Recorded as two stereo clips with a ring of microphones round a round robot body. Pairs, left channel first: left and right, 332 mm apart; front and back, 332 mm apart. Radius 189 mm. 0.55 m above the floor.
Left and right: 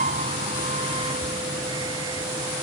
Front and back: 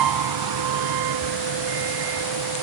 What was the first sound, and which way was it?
A vehicle, 160° right.